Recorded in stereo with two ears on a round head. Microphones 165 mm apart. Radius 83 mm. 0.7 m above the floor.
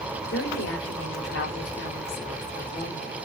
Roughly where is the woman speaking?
Left.